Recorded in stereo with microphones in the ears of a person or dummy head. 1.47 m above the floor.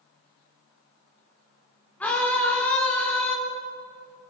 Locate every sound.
2.0 s a scream: 10° left (ahead or behind), 4.5 m